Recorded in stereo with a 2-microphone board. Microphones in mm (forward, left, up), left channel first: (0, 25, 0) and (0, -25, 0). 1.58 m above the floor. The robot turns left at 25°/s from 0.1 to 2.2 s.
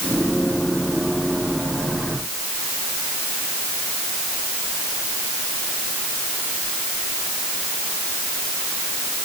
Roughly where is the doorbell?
I don't hear a doorbell.